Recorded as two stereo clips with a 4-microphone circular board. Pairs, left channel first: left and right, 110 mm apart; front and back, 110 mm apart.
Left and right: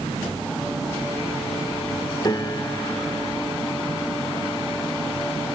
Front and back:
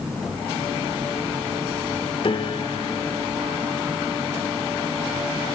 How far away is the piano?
About 1.4 m.